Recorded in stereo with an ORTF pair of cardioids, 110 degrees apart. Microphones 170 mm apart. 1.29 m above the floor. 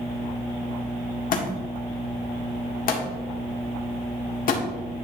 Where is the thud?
60° left, 1.8 m.